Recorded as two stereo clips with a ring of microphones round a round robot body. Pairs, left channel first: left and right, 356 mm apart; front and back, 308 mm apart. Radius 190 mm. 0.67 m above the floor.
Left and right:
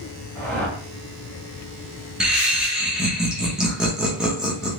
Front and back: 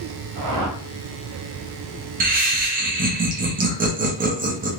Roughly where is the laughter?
Behind.